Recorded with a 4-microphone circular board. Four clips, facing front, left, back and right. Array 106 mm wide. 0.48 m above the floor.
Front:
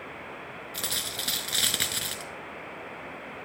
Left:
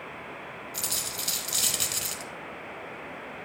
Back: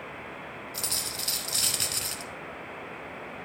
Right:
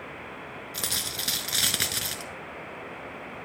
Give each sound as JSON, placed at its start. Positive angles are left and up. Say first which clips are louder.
{"t": 0.7, "sound": "a dropped coin", "louder": "right 1 dB, front 1 dB", "azimuth_deg": -55, "distance_m": 0.8}